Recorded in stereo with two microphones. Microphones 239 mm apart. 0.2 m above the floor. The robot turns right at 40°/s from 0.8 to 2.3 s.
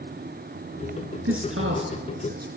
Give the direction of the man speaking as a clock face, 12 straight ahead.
3 o'clock.